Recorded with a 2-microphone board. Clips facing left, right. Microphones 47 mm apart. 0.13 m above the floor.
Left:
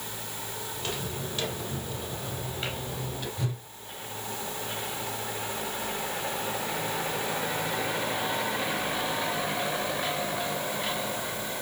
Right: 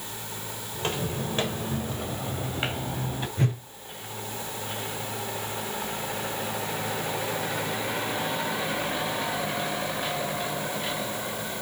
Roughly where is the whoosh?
Right.